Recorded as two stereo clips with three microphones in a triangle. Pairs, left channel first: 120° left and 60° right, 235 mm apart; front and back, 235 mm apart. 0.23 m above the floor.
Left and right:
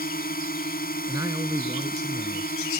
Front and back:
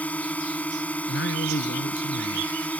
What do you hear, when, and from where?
0.0 s a drone: 80° left
1.1 s a man speaking: 15° left